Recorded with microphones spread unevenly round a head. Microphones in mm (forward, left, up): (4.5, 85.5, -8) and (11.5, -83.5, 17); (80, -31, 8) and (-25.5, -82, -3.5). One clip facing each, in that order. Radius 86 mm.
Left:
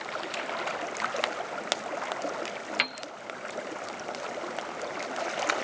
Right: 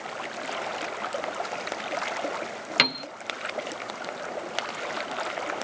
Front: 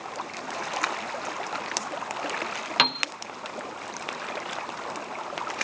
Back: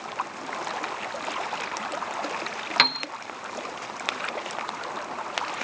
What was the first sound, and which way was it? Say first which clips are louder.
A piano: right 7 dB, even; 55° right.